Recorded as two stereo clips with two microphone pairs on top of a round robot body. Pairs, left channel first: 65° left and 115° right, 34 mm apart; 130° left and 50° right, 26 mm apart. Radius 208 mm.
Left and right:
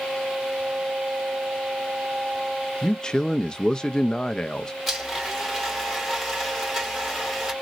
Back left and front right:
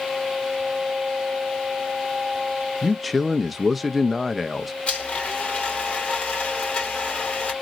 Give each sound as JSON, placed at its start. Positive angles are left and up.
{"t": 2.8, "sound": "a man speaking", "azimuth_deg": 30, "distance_m": 0.6}
{"t": 4.9, "sound": "a blender", "azimuth_deg": 160, "distance_m": 2.5}